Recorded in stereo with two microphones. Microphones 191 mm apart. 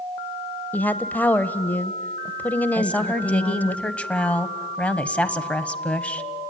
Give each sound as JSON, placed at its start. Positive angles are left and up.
{"t": 0.7, "sound": "a woman speaking", "side_deg": 10, "distance_m": 0.9}
{"t": 2.8, "sound": "a woman speaking", "side_deg": 5, "distance_m": 1.2}